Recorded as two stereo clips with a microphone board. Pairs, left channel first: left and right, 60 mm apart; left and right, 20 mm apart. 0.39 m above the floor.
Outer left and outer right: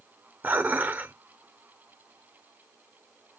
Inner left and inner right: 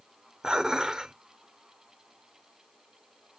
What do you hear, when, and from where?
0.4 s dishes clattering: 30° right (ahead or behind), 0.7 m